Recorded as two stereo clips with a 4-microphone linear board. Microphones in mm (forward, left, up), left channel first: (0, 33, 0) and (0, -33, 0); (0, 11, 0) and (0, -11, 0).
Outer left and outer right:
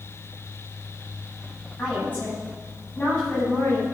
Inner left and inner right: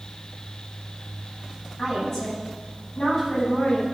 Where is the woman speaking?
25° left (ahead or behind), 9 m.